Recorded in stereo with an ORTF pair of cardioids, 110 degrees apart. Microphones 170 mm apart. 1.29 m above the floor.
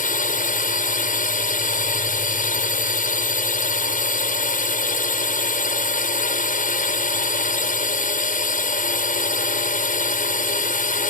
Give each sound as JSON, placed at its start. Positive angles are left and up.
{"t": 0.0, "sound": "a drone", "azimuth_deg": 50}